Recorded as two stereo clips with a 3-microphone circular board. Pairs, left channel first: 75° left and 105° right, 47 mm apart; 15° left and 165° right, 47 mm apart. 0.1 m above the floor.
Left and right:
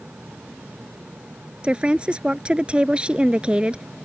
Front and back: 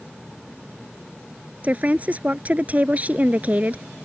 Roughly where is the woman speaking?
Behind right.